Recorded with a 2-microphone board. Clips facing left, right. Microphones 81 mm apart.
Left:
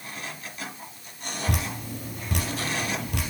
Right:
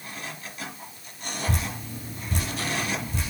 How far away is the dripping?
About 2 m.